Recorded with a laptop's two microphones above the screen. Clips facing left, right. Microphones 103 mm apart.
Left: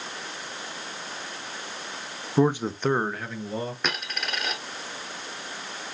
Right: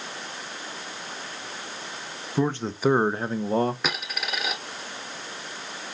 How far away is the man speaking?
About 0.5 m.